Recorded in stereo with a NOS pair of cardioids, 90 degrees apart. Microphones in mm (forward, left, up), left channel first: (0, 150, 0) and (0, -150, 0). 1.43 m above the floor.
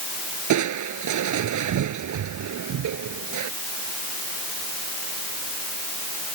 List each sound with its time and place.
0.5 s crushing: 70° right